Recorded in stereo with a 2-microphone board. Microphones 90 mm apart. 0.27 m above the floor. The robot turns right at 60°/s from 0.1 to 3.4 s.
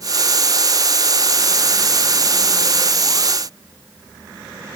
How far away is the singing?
I don't hear singing.